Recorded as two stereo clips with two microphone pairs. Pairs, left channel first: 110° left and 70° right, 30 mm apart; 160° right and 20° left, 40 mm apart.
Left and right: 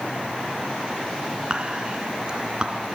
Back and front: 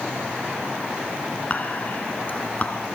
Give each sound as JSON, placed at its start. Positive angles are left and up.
{"t": 1.5, "sound": "whispering", "azimuth_deg": -120, "distance_m": 2.0}